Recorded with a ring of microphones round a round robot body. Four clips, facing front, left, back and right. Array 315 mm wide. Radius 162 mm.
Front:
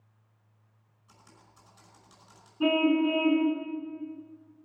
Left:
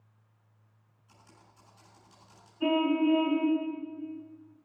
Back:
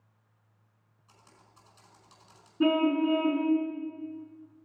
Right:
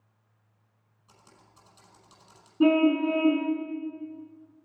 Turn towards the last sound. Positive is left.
turn(degrees=-110)